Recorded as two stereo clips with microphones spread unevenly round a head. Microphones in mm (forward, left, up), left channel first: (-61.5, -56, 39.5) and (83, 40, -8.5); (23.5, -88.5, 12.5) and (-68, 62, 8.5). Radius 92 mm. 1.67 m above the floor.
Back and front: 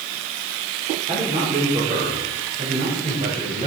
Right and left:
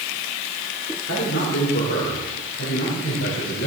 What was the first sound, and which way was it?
A man speaking, 30° right.